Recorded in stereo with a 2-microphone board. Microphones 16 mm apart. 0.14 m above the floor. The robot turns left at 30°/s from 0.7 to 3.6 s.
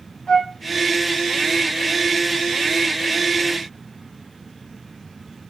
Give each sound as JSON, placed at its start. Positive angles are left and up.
{"t": 0.3, "sound": "a flute", "side_deg": 85, "distance_m": 3.0}